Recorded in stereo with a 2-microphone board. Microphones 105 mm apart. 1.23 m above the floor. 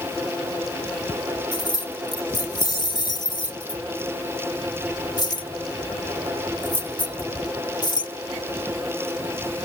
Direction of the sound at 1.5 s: 45° left (ahead or behind).